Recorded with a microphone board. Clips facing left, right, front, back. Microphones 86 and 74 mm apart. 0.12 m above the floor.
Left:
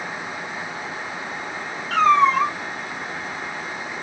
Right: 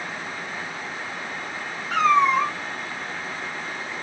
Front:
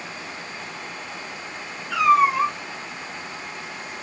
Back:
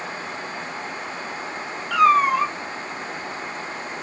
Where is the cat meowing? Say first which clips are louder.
Left 2 dB, back 1 dB; 170° right, 2.5 m.